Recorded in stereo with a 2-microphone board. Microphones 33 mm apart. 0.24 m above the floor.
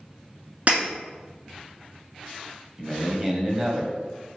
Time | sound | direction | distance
0.7 | breaking glass | 50° right (ahead or behind) | 1.3 m
2.8 | a man speaking | 20° right (ahead or behind) | 0.9 m